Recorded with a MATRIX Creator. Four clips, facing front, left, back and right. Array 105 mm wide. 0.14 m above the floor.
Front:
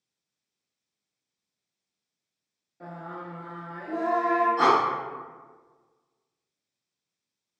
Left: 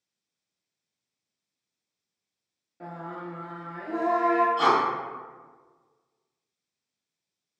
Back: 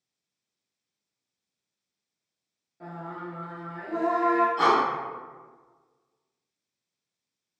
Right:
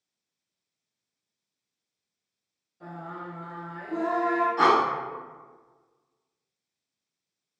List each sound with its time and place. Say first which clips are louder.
2.8 s singing: left 1 dB, back 1 dB; 85° left, 0.7 m
4.6 s breathing: right 2 dB, front 2 dB; 75° right, 0.6 m